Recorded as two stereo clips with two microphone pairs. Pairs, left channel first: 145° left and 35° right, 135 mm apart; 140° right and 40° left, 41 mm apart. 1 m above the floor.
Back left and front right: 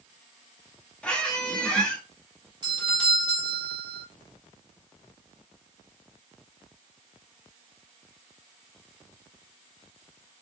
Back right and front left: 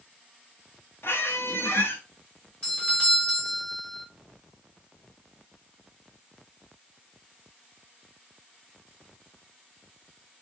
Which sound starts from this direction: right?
A doorbell, at 2.6 s.